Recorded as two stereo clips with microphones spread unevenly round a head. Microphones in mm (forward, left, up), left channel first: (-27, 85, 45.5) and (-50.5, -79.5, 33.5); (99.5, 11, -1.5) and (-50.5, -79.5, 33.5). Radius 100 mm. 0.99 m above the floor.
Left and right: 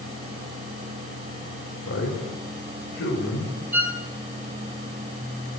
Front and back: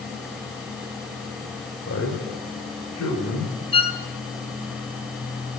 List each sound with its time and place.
1.9 s a man speaking: 60° left, 4.5 m
3.7 s a violin: 20° right, 1.4 m